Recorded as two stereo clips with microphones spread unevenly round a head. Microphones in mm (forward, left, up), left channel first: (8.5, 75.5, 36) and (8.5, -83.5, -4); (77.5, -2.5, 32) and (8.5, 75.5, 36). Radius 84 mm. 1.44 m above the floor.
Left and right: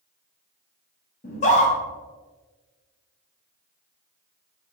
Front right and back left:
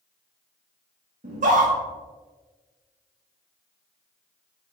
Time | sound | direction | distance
1.2 | a scream | 140° left | 3 m